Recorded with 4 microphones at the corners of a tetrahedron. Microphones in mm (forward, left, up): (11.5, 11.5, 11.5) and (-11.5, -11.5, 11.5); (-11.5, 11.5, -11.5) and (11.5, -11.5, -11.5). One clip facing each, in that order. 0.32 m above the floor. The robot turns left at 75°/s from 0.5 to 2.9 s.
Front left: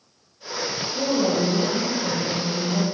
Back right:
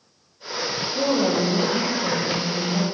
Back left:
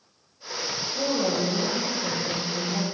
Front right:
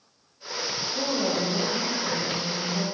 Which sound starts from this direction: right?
A woman speaking, at 0.9 s.